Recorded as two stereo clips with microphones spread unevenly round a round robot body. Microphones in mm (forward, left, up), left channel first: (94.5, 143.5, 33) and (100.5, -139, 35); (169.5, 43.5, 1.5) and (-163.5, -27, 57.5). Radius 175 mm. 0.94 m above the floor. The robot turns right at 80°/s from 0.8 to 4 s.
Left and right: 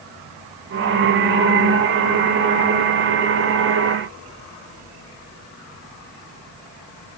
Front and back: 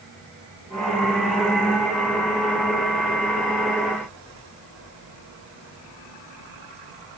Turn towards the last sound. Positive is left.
No sound to turn to.